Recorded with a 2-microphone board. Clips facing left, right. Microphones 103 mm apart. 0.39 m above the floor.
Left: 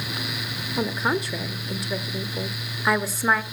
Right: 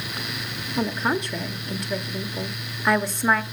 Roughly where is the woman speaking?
Centre.